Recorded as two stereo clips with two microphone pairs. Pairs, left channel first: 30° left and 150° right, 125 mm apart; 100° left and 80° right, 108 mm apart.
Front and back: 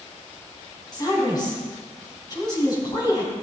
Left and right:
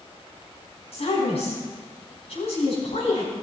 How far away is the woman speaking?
About 4.5 m.